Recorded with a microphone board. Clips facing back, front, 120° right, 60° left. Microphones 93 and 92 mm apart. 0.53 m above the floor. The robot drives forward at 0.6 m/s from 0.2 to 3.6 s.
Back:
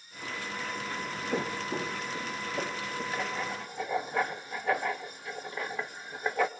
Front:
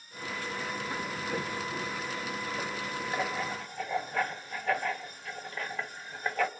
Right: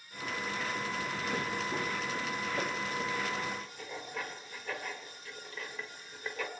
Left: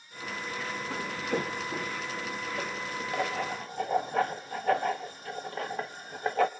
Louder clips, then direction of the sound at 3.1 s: Front 4 dB, left 4 dB; 75° left.